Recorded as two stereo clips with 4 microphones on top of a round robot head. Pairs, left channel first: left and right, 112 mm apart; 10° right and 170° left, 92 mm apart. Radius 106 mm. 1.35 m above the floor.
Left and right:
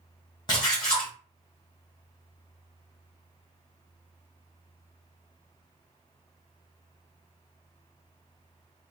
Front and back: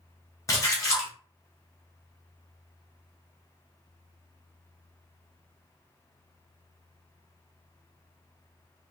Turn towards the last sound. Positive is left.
turn(degrees=30)